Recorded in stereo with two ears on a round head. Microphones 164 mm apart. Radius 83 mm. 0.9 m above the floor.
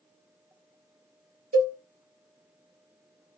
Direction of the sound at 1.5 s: 40° right (ahead or behind).